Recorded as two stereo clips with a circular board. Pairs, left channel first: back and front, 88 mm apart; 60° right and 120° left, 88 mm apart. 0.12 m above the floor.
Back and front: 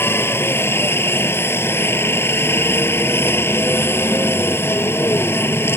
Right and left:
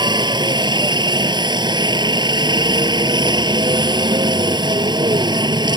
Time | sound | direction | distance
0.0 | a helicopter | 125° left | ?